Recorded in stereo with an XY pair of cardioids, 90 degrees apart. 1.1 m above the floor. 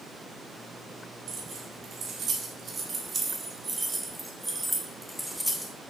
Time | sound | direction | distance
1.3 | keys jangling | 70° right | 3.5 m